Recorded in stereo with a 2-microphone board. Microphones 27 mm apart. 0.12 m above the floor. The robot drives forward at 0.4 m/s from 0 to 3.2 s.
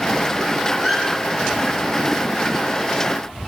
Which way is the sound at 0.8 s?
5° left (ahead or behind).